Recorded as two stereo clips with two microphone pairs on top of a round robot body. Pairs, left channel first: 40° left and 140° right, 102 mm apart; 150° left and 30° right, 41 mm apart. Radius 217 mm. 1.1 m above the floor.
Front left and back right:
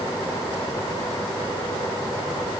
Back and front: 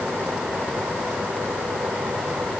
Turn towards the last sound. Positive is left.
No sound to turn to.